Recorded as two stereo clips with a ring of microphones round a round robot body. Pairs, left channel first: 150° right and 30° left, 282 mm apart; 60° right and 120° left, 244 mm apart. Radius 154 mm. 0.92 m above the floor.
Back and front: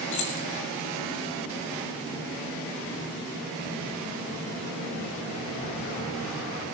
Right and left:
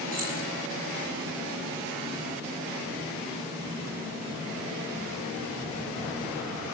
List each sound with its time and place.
0.1 s keys jangling: straight behind, 5 m